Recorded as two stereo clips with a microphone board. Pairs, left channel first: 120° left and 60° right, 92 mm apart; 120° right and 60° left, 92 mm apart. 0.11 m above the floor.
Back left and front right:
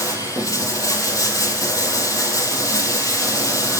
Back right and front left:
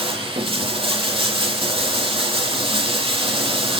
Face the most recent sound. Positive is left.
turn(degrees=70)